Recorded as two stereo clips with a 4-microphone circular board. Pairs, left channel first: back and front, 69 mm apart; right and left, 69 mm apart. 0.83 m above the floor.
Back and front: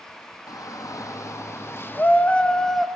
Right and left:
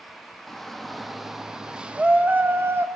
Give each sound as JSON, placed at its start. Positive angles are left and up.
{"t": 0.5, "sound": "a shout", "azimuth_deg": -175, "distance_m": 1.3}